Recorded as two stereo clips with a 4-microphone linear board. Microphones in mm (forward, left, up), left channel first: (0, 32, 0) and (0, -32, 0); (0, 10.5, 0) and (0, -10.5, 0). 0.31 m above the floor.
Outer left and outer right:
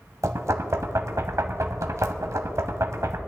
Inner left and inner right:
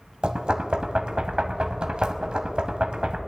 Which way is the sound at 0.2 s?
50° right (ahead or behind).